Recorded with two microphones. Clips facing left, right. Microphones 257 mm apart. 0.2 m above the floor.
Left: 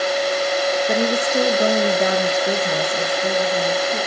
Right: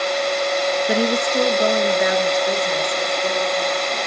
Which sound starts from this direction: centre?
A woman speaking, at 0.9 s.